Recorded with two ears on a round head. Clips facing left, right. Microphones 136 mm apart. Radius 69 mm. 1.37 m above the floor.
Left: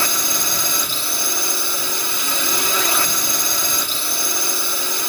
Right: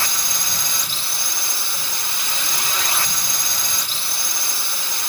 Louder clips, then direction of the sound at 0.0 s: Left 5 dB; 75° left (ahead or behind).